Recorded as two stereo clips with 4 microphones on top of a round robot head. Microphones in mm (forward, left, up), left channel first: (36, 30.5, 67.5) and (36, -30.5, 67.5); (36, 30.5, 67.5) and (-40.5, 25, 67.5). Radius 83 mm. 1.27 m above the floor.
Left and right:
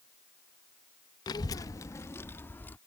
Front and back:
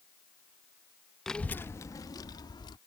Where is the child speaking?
90° left; by 2.8 s 30° left.